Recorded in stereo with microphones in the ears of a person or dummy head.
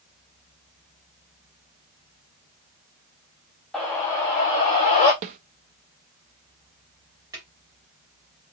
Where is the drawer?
20° right (ahead or behind), 2.5 m.